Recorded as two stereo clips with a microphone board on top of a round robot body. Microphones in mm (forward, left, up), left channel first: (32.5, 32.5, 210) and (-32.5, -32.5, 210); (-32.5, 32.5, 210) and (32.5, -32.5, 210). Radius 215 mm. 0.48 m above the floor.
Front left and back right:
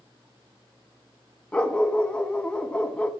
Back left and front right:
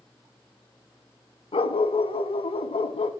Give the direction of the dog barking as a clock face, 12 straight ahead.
8 o'clock.